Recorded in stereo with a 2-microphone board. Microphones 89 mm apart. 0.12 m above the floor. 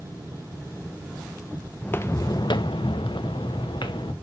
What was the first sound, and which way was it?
Footsteps, 20° left (ahead or behind).